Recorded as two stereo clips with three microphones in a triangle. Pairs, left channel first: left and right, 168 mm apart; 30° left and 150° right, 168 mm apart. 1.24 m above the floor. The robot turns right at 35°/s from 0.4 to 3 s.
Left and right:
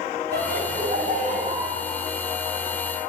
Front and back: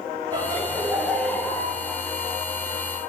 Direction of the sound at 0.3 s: 85° right.